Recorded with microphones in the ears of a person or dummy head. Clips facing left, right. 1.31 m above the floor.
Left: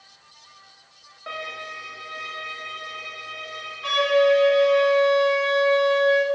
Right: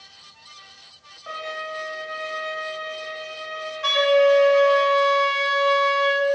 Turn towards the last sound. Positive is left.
turn(degrees=-75)  # may be behind; listen again after turning